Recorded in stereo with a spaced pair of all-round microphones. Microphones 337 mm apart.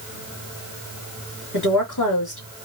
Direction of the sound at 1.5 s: 55° left (ahead or behind).